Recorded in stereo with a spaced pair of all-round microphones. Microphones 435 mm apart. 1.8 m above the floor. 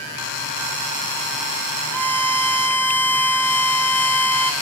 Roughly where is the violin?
Centre.